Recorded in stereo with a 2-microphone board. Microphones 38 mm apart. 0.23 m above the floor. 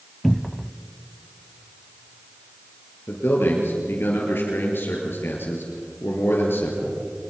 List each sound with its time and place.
0.2 s a cupboard door: 5° left (ahead or behind), 0.5 m
3.1 s a man speaking: 75° left (ahead or behind), 5 m